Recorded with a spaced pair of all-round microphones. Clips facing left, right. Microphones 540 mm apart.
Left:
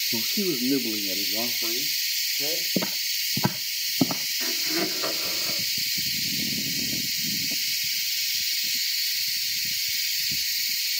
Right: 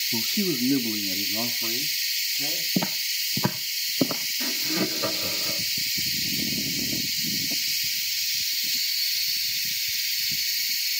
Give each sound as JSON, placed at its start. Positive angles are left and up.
{"t": 0.1, "sound": "a man speaking", "side_deg": -10, "distance_m": 0.5}
{"t": 2.8, "sound": "footsteps", "side_deg": -15, "distance_m": 1.5}
{"t": 4.4, "sound": "laughter", "side_deg": -55, "distance_m": 2.5}